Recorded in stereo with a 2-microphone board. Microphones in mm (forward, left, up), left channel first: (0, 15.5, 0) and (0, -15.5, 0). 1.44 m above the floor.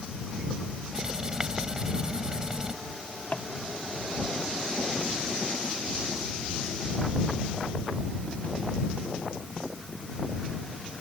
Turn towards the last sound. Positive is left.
turn(degrees=45)  # may be behind; listen again after turning